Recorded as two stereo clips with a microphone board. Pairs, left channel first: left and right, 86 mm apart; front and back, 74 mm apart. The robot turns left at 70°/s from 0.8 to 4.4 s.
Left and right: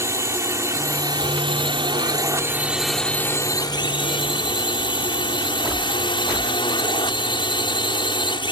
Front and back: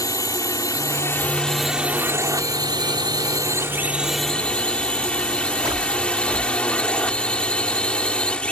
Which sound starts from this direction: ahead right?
A drone, at 0.0 s.